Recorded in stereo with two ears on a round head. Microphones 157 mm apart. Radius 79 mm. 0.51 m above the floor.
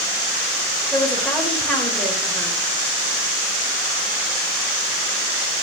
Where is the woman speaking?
5° left (ahead or behind), 2.5 m.